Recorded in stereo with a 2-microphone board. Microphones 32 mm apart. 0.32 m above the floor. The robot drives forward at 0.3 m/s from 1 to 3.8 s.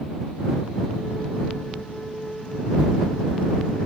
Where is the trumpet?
I don't hear a trumpet.